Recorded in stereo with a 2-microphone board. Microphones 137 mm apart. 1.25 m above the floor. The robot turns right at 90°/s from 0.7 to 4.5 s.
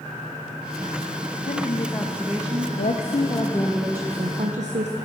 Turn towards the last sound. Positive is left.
turn(degrees=-115)